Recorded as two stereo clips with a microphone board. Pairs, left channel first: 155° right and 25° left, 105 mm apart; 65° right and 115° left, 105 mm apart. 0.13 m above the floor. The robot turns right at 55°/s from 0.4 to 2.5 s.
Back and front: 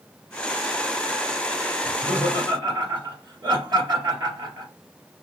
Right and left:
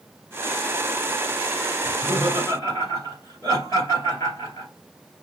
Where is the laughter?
65° right, 2 m; by 4.7 s 25° right, 2 m.